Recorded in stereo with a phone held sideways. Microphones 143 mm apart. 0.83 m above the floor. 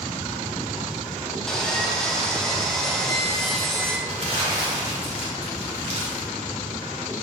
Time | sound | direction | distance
1.5 | sawing | 5° left (ahead or behind) | 1.0 m
4.1 | crumpling | 45° right (ahead or behind) | 2.5 m